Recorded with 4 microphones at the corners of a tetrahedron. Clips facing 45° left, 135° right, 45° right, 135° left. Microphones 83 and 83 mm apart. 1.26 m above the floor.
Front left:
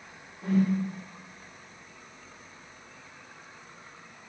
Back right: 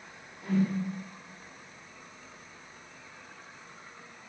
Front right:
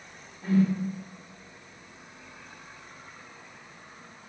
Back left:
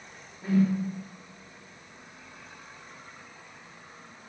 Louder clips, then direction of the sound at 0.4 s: Front left 3 dB, even; 65° left.